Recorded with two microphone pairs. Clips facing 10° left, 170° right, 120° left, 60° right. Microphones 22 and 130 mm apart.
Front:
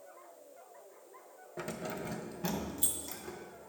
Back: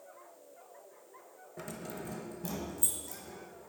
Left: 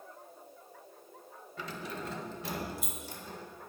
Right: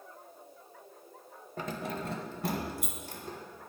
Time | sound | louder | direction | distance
1.6 | keys jangling | front 3 dB, right 4 dB | 55° right | 0.8 m